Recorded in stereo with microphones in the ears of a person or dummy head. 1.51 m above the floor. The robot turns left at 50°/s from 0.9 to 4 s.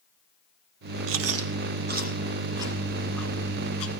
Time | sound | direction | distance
1.1 | chewing | 80° right | 1.8 m